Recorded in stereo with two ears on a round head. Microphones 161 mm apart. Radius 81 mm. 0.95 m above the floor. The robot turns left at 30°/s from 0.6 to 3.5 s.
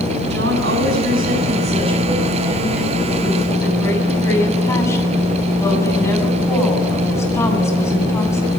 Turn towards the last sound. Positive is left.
turn(degrees=165)